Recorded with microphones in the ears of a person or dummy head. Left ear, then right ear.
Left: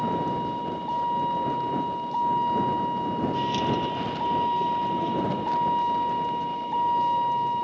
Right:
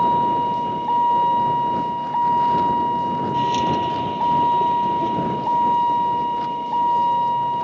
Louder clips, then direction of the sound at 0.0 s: Right 9 dB; 30° right (ahead or behind).